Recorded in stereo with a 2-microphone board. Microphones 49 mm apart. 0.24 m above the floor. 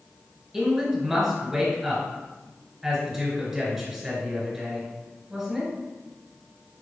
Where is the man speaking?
10° right (ahead or behind), 1.3 m.